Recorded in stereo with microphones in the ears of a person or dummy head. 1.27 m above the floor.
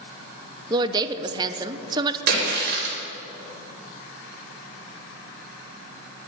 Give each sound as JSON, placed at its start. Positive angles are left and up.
{"t": 0.7, "sound": "a woman speaking", "side_deg": -20, "distance_m": 0.6}
{"t": 2.3, "sound": "a splash", "side_deg": -55, "distance_m": 4.5}